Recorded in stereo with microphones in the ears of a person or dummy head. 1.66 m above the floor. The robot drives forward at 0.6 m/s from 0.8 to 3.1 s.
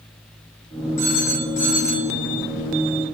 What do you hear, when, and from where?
1.0 s a phone ringing: 65° left (ahead or behind), 10 m; by 2.1 s 60° left (ahead or behind), 10 m